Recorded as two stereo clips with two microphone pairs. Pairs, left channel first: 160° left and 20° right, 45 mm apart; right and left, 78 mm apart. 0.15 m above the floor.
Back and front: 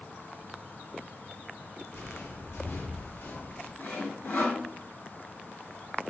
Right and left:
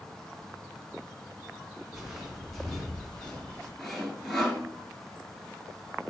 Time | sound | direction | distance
1.9 | footsteps | straight behind | 2 m
3.8 | sawing | 175° right | 1.4 m